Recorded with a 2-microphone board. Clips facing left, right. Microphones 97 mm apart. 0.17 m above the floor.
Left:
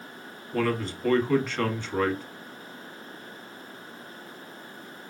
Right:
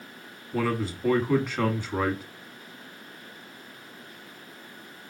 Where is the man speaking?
10° right (ahead or behind), 1.1 m.